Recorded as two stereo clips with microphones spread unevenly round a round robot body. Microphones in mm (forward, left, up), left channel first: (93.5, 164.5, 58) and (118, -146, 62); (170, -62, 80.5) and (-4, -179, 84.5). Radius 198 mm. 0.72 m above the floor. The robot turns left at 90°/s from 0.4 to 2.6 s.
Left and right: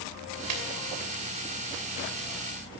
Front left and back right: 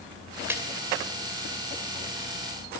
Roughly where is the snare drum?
Ahead right.